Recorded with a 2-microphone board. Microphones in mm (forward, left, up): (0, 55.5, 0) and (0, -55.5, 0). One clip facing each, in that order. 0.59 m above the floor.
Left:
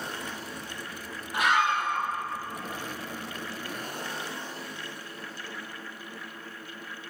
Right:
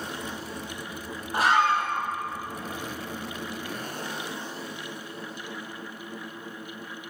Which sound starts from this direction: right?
A scream, at 1.3 s.